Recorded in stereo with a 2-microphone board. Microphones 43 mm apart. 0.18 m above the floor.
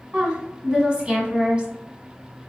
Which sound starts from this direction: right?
A woman speaking, at 0.1 s.